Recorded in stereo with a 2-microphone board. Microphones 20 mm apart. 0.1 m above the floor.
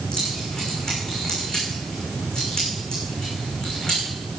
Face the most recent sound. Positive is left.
turn(degrees=50)  # may be behind; listen again after turning